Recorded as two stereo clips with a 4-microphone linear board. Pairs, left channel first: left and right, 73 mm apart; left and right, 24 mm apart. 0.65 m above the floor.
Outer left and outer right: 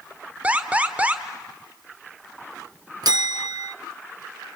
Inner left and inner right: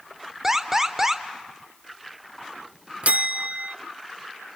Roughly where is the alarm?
Centre.